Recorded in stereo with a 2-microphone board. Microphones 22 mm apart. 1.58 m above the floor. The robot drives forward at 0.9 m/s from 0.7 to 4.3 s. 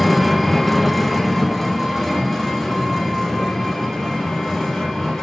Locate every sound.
0.0 s an engine running: 5° left (ahead or behind), 1.0 m; by 5.2 s centre (ahead or behind), 4 m